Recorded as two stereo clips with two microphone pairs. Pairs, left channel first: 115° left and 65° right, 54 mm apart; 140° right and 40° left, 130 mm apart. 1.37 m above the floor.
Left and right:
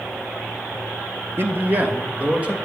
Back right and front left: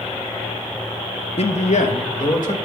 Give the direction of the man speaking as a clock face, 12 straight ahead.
4 o'clock.